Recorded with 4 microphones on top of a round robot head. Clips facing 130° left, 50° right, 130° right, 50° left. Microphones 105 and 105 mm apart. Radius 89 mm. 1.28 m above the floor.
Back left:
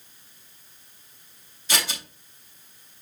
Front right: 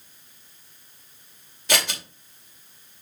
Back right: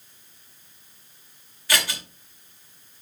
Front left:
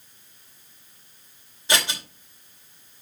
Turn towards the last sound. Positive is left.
turn(degrees=-15)